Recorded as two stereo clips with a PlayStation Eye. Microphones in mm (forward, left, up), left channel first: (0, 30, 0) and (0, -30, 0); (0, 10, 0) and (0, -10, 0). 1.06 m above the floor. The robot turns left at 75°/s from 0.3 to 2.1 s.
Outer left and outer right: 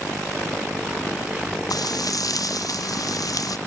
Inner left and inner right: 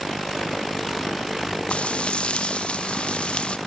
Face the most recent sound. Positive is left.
turn(degrees=75)